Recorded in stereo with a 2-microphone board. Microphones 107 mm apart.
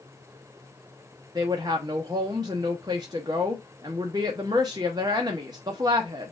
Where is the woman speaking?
40° right (ahead or behind), 0.7 m.